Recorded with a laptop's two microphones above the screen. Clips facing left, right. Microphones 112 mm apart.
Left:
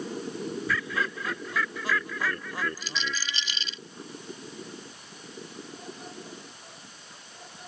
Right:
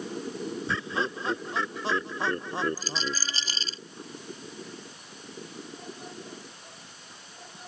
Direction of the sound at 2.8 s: 40° right (ahead or behind).